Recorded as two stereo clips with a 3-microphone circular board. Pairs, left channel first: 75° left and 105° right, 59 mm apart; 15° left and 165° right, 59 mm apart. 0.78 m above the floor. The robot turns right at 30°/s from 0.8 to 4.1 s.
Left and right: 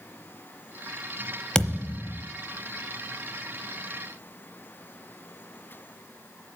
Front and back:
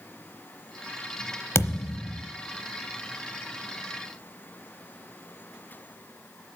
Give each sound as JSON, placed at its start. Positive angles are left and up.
{"t": 1.6, "sound": "a thud", "azimuth_deg": 5, "distance_m": 0.8}